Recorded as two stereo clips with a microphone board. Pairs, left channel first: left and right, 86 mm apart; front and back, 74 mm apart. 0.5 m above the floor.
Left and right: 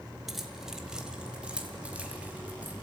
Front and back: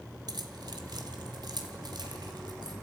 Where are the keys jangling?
Straight behind, 1.7 m; by 2.7 s 165° right, 3.5 m.